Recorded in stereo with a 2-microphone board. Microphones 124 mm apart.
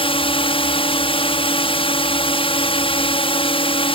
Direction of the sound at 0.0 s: 45° left (ahead or behind).